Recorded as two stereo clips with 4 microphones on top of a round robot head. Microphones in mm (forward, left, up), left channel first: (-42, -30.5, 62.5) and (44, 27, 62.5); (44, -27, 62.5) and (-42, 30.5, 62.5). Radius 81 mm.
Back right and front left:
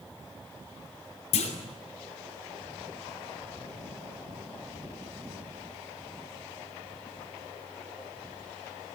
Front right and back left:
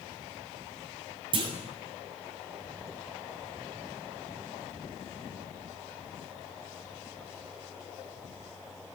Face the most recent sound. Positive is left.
turn(degrees=-170)